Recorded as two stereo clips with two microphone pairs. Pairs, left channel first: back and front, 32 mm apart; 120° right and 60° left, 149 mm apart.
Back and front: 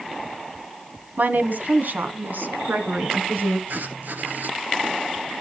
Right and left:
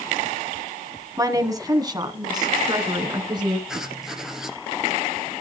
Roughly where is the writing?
Ahead right.